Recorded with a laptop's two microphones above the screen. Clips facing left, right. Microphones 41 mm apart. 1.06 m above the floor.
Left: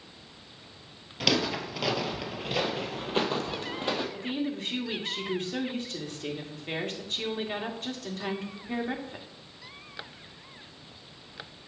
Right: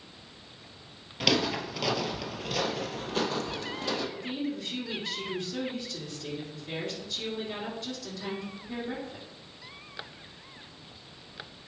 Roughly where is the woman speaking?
Left.